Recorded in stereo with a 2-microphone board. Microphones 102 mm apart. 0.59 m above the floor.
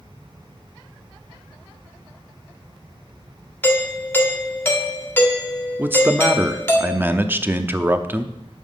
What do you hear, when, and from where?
3.6 s a doorbell: 20° left (ahead or behind), 1.9 m
5.8 s a man speaking: 20° right (ahead or behind), 0.7 m